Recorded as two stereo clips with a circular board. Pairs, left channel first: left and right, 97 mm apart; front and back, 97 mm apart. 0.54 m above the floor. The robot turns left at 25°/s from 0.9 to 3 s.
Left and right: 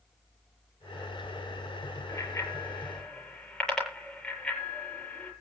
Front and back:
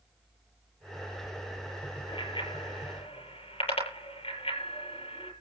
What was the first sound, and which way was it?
A bicycle bell, 35° left.